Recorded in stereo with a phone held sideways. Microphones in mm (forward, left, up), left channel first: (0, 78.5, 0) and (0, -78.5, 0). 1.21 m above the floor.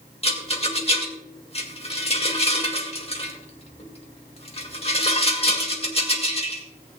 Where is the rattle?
40° left (ahead or behind), 2.0 m.